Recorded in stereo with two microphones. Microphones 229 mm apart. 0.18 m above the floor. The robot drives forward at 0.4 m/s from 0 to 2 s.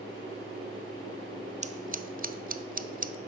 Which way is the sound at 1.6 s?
30° right (ahead or behind).